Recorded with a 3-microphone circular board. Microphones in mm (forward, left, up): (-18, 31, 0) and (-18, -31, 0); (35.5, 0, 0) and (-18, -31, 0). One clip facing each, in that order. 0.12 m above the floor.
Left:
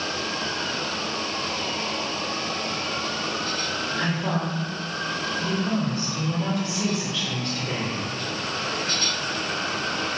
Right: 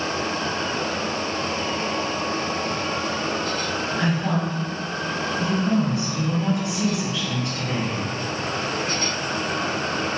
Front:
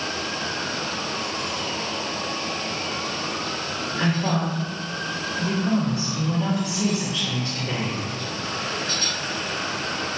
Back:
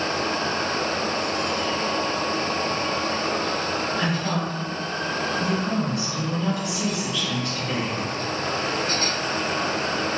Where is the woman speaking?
25° right, 1.9 m.